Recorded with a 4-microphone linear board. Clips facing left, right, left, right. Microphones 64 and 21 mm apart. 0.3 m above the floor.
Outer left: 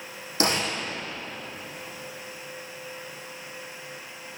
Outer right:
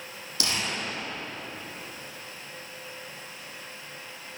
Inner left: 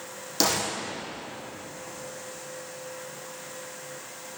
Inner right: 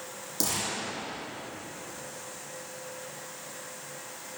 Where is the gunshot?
40° left (ahead or behind), 4.5 m.